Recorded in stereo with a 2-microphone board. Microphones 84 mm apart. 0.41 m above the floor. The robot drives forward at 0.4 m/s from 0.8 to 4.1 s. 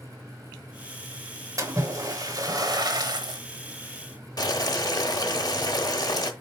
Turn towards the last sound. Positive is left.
turn(degrees=50)  # may be behind; listen again after turning